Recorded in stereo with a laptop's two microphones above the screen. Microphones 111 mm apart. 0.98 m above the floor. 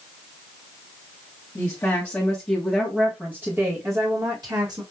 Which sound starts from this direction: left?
A woman speaking, at 1.6 s.